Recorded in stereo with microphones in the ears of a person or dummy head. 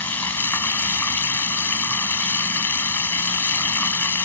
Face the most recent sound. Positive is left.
turn(degrees=10)  # may be behind; listen again after turning